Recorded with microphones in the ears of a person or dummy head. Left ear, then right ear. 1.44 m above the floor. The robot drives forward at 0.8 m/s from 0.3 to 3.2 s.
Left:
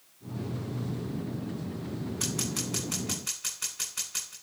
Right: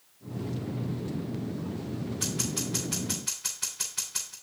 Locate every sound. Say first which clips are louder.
2.2 s scissors: right 1 dB; 30° left (ahead or behind), 5.5 m